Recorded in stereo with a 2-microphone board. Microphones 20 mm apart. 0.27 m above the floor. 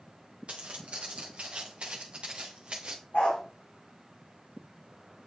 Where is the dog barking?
55° left (ahead or behind), 4.5 m.